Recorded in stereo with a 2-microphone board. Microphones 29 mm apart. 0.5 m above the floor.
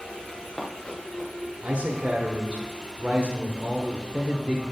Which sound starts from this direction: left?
Running footsteps, at 0.3 s.